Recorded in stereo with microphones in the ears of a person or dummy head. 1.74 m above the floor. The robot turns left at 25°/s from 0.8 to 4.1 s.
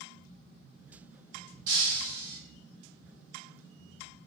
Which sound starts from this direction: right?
Breaking glass, at 1.7 s.